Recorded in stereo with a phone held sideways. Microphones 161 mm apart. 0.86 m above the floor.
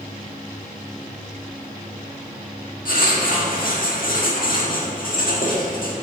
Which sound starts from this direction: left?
Writing, at 2.9 s.